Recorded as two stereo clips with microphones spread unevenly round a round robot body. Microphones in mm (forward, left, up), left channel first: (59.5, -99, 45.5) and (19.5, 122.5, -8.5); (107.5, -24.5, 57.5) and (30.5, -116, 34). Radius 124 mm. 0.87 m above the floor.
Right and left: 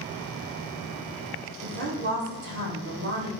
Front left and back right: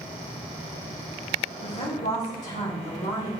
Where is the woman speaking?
65° left, 4 m.